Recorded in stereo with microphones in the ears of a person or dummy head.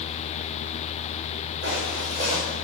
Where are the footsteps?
60° right (ahead or behind), 7 m.